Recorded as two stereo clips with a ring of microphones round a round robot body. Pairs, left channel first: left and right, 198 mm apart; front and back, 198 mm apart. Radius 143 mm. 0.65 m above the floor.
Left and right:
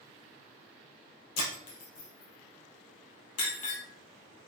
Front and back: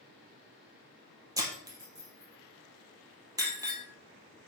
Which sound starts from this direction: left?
Breaking glass, at 1.4 s.